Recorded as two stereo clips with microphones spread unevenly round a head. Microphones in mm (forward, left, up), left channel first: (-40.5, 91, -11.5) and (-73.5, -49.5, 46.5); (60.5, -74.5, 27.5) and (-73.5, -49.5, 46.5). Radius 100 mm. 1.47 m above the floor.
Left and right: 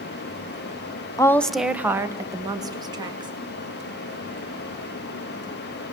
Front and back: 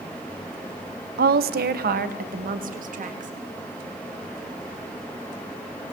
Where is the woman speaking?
135° left, 0.9 m; by 3.3 s 165° right, 3.5 m.